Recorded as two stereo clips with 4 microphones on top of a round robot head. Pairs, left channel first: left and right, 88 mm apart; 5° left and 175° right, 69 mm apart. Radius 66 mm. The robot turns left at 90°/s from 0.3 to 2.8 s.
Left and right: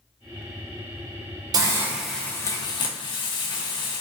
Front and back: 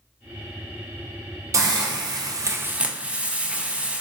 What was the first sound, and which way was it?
A hiss, 135° right.